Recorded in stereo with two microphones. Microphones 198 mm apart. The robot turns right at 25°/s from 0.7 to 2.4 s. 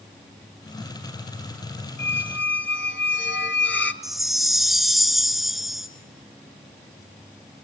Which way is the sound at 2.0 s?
75° left (ahead or behind).